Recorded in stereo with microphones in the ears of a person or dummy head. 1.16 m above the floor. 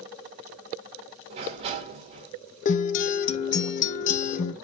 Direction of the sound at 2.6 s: 45° left (ahead or behind).